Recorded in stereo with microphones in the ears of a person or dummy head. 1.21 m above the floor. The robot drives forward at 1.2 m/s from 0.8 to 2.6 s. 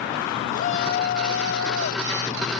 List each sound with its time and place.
0.5 s a shout: 50° left (ahead or behind); by 2.1 s 75° left (ahead or behind)